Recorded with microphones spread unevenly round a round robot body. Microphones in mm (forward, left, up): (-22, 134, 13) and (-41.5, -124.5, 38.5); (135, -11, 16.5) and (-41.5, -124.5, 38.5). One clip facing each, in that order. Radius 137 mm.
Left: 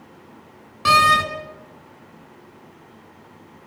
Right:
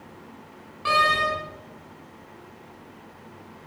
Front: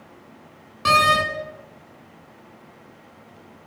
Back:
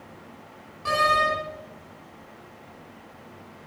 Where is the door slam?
55° left, 3 m.